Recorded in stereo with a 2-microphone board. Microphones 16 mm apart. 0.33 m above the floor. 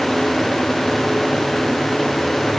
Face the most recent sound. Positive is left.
No sound to turn to.